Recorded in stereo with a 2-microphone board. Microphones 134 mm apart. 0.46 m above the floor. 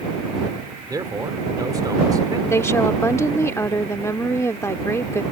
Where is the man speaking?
30° right (ahead or behind).